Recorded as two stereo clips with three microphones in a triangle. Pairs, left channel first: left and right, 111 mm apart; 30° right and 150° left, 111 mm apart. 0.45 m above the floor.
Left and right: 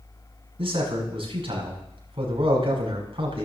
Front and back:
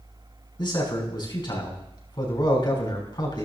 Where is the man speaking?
70° right, 5 m.